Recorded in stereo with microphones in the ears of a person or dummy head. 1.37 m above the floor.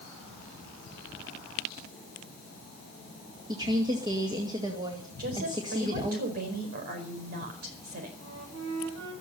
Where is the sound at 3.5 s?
30° right (ahead or behind), 2 m.